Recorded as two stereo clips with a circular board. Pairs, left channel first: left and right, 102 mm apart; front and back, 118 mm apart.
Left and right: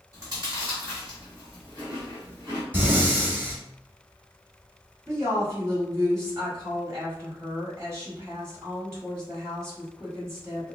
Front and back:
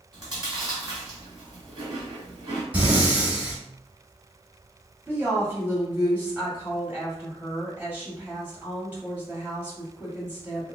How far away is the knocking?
No knocking in this recording.